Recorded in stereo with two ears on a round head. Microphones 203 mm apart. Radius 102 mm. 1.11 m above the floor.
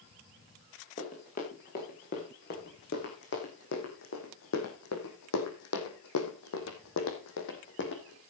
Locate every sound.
1.0 s running footsteps: 35° left (ahead or behind), 6 m; by 8.2 s 50° left (ahead or behind), 4 m